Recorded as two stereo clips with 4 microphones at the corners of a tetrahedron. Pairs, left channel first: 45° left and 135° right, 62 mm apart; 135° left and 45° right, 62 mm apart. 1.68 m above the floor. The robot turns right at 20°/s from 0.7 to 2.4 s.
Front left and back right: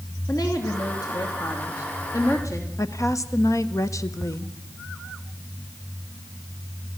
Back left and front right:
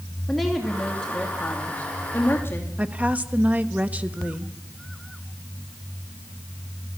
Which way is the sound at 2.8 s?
20° left.